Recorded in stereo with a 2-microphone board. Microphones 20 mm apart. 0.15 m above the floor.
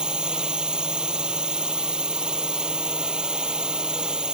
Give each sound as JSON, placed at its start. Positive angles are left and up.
{"t": 0.0, "sound": "a drone", "side_deg": -45}